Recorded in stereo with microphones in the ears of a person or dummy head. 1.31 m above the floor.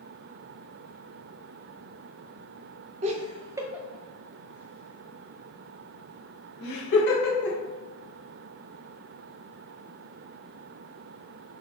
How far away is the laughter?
About 0.8 m.